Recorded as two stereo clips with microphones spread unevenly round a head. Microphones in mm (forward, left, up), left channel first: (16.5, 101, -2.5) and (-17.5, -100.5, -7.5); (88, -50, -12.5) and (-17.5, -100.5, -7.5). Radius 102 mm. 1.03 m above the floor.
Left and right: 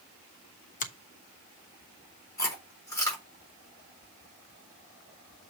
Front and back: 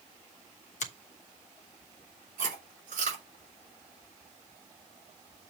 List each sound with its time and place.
0.8 s a finger snap: 25° left, 1.1 m
2.4 s chewing: 155° left, 4 m